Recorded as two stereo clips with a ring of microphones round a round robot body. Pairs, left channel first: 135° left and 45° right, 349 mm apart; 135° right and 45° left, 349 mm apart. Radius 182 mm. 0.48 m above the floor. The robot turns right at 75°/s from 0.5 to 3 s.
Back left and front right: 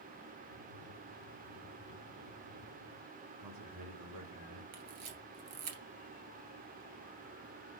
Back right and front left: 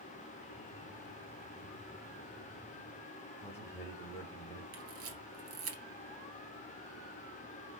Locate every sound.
3.4 s a man speaking: 55° right, 3 m
4.7 s a camera shutter: 10° right, 2 m